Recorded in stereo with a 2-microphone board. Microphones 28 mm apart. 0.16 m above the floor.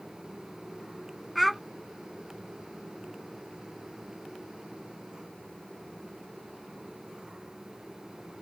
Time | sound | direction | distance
1.4 | a child speaking | centre (ahead or behind) | ?